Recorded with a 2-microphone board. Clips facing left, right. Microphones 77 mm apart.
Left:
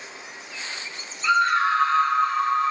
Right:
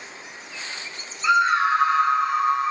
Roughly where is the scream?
Centre.